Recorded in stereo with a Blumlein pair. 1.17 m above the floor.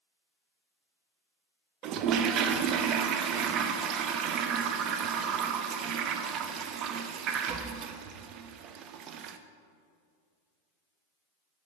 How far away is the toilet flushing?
About 0.6 m.